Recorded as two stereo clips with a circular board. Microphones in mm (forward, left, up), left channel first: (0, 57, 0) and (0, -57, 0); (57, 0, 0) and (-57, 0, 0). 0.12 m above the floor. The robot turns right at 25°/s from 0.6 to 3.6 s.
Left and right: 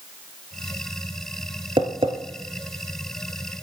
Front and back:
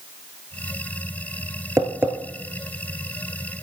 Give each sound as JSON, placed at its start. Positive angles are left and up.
{"t": 1.8, "sound": "tapping", "azimuth_deg": -120, "distance_m": 1.1}